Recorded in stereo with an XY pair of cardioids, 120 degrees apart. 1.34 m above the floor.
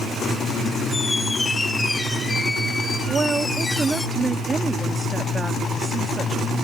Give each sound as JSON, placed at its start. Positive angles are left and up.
{"t": 0.9, "sound": "a squeak", "azimuth_deg": 20}
{"t": 3.1, "sound": "a woman speaking", "azimuth_deg": -25}